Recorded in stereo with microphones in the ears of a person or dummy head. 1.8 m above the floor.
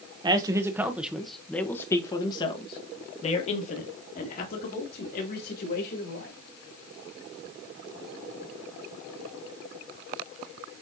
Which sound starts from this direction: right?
A man speaking, at 0.2 s.